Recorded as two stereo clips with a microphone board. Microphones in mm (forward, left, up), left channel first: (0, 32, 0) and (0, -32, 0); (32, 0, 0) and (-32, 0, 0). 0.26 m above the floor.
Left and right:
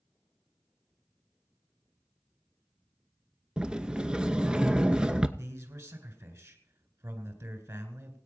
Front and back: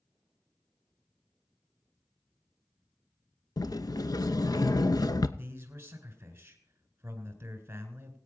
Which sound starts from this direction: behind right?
A man speaking, at 5.4 s.